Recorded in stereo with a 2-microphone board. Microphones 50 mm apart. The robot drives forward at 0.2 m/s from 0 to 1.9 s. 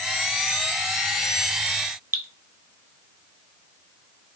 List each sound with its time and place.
2.1 s dripping: 55° right (ahead or behind), 0.6 m